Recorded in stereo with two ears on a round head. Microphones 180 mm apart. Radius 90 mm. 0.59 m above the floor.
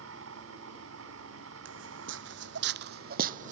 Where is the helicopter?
70° right (ahead or behind); by 3.5 s 75° right (ahead or behind).